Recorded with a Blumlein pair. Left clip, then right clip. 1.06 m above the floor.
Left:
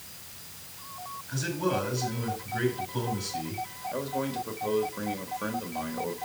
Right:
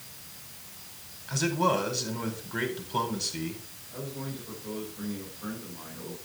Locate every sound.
1.3 s a man speaking: 60° right, 5 m
3.9 s a man speaking: 55° left, 3.5 m